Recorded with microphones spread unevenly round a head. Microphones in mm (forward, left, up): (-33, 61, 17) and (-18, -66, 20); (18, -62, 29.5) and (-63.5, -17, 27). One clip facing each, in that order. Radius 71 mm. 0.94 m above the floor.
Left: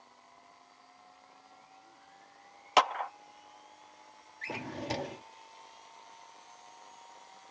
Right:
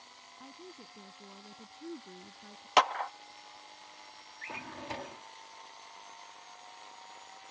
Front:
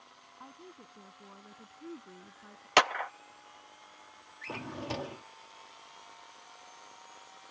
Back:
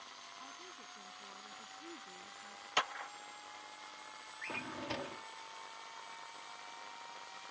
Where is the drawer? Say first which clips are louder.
Left 5 dB, front 4 dB; 40° left.